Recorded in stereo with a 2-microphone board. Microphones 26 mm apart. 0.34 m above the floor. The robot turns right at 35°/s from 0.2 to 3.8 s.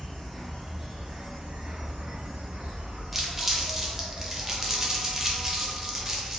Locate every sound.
0.0 s an insect: 175° left, 0.7 m; by 6.4 s 60° right, 0.7 m
3.1 s crumpling: 10° right (ahead or behind), 0.5 m; by 6.4 s 20° right (ahead or behind), 0.5 m